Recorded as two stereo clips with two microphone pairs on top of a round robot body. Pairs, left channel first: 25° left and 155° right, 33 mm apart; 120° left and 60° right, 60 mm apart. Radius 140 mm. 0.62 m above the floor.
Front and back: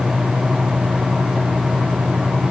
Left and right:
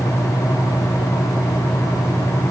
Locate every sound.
Only background noise.